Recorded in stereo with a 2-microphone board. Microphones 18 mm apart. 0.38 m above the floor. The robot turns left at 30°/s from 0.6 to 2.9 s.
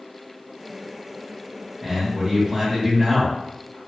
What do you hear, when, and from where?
1.8 s a man speaking: 80° right, 1.4 m; by 3.8 s 115° right, 1.4 m